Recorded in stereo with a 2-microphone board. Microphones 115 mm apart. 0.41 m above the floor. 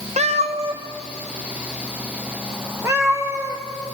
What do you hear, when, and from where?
0.2 s a cat meowing: 75° right (ahead or behind), 1.2 m; by 3.6 s 20° right (ahead or behind), 5.5 m